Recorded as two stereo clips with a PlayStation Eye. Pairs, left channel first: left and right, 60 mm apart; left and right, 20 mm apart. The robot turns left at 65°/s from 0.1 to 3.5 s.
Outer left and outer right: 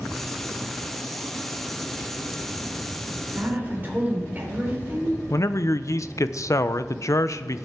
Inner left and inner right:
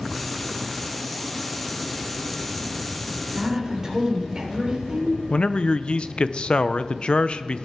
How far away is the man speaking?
About 0.5 m.